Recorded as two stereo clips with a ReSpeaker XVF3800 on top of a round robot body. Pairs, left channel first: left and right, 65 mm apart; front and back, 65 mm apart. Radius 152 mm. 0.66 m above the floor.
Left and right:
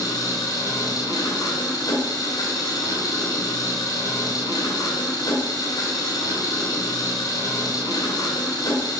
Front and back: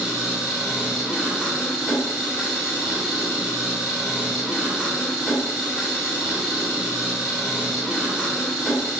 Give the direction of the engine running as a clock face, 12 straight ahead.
9 o'clock.